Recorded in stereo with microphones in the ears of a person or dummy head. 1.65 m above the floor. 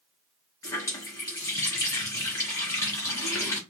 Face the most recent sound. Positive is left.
turn(degrees=15)  # may be behind; listen again after turning